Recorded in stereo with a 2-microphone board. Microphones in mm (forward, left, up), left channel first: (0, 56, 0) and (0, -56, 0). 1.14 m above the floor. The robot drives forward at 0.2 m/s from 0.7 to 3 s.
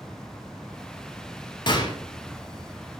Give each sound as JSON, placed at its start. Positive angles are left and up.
{"t": 1.7, "sound": "a gunshot", "side_deg": 40, "distance_m": 0.5}